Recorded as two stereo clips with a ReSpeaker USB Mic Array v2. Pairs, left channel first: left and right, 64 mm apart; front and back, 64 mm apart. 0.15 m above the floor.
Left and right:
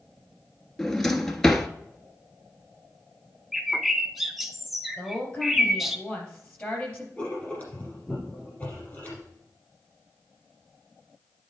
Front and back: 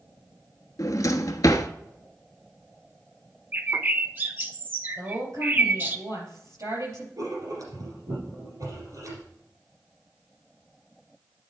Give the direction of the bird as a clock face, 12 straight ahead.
6 o'clock.